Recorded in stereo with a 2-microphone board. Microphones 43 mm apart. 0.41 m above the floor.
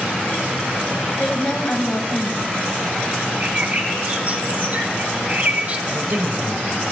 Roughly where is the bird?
Right.